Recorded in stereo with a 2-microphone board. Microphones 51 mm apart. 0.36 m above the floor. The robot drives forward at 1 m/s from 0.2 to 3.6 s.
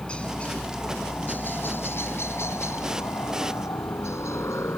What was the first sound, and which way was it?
A helicopter, 20° left (ahead or behind).